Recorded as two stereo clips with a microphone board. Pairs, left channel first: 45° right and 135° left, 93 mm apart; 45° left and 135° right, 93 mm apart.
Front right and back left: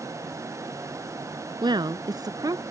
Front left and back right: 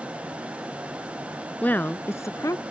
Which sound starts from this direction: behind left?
A woman speaking, at 1.6 s.